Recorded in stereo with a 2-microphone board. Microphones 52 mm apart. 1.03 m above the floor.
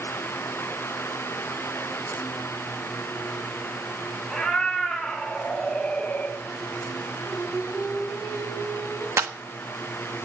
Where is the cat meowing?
Centre (ahead or behind), 3.5 m; by 6.4 s 35° left (ahead or behind), 2 m.